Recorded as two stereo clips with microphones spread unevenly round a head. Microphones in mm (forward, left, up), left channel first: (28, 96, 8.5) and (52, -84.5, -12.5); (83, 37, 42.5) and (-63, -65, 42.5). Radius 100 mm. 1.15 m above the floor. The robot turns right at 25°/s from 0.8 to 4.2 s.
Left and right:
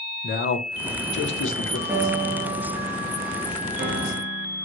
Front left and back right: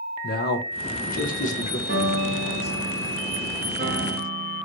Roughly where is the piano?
Behind.